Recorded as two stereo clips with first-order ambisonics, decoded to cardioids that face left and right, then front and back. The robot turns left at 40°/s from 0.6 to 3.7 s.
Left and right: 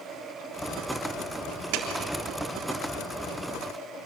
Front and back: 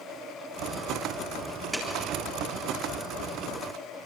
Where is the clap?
100° right, 3.5 m; by 1.9 s 105° right, 3.5 m.